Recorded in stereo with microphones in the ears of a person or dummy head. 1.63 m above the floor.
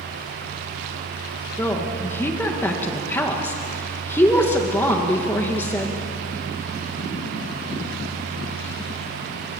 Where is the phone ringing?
I don't hear a phone ringing.